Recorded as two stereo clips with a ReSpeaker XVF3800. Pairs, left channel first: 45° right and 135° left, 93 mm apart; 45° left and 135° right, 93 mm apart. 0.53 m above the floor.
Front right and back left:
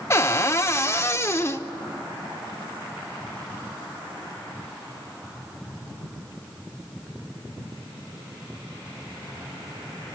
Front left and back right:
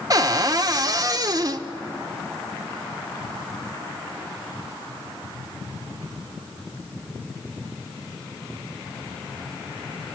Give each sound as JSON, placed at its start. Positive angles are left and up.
{"t": 0.1, "sound": "a cupboard door", "azimuth_deg": -95, "distance_m": 0.8}